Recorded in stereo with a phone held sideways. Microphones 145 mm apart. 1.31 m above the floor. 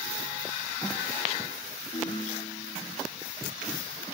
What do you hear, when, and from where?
1.9 s a ringtone: 70° left (ahead or behind), 4.5 m